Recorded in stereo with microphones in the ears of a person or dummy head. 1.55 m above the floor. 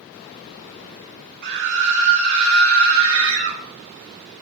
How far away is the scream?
About 2.0 m.